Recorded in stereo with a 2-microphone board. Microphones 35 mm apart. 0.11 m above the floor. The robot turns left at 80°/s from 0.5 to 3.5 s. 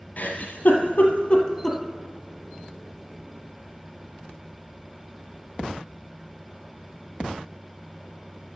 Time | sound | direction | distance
0.2 | a giggle | 55° left (ahead or behind) | 1.2 m